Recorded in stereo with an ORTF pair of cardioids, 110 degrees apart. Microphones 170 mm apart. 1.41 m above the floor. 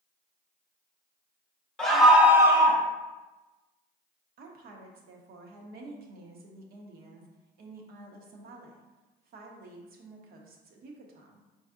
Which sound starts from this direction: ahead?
A scream, at 1.8 s.